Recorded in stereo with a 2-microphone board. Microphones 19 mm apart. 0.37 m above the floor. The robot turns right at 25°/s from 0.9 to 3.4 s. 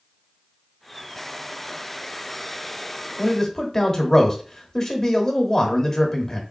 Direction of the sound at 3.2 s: 25° left (ahead or behind).